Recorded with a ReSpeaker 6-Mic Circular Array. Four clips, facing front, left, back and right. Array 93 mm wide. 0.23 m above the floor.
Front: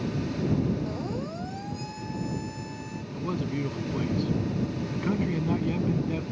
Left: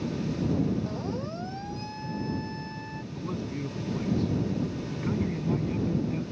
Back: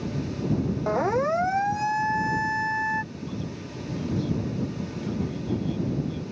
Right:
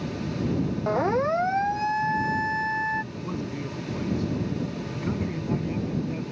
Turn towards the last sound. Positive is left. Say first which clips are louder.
# right 2 dB, front 4 dB
turn(degrees=-10)